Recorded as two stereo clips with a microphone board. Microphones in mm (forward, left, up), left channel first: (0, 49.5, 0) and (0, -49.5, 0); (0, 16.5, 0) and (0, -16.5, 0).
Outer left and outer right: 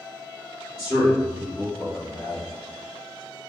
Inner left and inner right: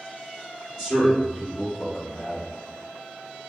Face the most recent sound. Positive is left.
turn(degrees=-10)  # may be behind; listen again after turning